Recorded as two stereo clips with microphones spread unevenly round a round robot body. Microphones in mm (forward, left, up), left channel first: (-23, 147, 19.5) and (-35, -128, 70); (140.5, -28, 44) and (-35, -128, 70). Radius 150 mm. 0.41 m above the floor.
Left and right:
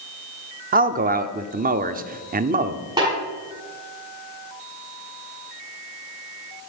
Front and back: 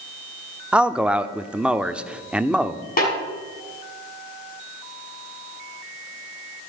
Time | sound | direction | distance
0.7 | a man speaking | 55° right | 0.8 m
3.0 | a snare drum | 15° right | 5.5 m